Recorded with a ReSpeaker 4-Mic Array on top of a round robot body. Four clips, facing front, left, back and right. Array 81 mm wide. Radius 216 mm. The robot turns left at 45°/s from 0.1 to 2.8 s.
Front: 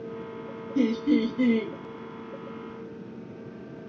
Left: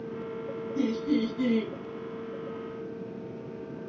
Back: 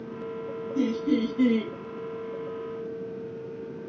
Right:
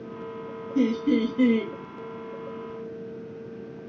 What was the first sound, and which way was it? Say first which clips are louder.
Laughter: right 5 dB, front 2 dB; 65° right.